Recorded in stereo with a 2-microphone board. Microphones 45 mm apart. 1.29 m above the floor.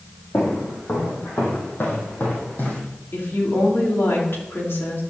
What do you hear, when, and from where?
0.3 s footsteps: 70° left (ahead or behind), 4.5 m; by 2.8 s 35° left (ahead or behind), 3.5 m
3.1 s a woman speaking: 60° left (ahead or behind), 3 m